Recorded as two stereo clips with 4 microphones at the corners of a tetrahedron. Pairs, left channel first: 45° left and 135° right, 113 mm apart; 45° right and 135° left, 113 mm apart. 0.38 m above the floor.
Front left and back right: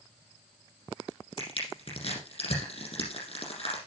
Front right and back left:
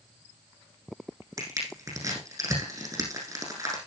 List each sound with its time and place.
1.4 s crushing: 70° left, 6 m